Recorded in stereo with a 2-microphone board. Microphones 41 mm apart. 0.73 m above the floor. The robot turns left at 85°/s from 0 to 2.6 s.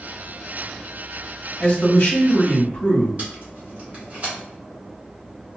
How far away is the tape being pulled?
About 1.2 m.